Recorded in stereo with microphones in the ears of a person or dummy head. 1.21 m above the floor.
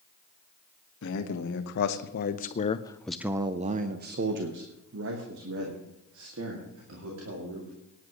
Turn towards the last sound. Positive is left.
turn(degrees=-80)